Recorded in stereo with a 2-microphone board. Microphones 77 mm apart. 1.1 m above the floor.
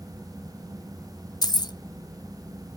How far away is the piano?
No piano in this recording.